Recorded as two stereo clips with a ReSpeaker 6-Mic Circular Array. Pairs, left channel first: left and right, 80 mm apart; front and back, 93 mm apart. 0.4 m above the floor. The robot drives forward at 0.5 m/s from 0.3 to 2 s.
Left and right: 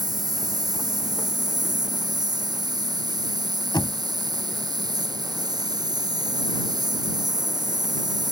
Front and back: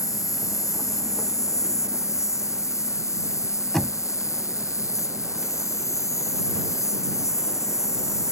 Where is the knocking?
85° left.